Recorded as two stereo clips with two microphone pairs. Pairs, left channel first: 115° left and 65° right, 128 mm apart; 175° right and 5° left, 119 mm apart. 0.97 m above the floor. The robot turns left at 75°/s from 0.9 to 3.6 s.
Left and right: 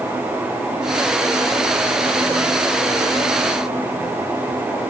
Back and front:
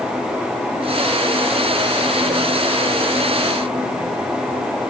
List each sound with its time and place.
Only background noise.